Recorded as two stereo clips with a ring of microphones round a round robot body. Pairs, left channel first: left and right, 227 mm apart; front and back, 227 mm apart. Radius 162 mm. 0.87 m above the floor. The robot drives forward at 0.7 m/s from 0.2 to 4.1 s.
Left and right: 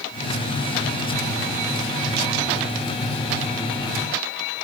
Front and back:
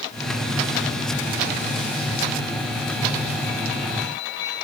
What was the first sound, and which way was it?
Only background noise.